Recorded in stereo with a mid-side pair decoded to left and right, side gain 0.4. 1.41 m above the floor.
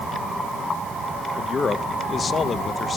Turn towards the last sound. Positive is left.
turn(degrees=45)